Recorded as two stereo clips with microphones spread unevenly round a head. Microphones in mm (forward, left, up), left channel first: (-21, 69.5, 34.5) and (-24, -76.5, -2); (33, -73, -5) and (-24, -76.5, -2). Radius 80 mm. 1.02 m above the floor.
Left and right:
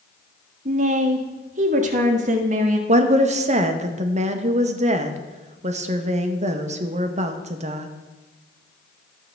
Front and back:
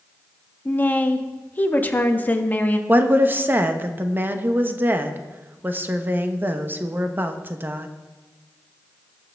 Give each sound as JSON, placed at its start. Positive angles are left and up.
{"t": 0.7, "sound": "a woman speaking", "azimuth_deg": -55, "distance_m": 1.4}
{"t": 2.9, "sound": "a woman speaking", "azimuth_deg": -125, "distance_m": 1.0}